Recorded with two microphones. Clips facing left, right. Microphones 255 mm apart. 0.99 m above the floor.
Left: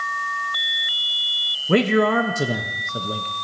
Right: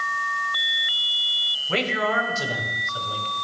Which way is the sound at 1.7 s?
60° left (ahead or behind).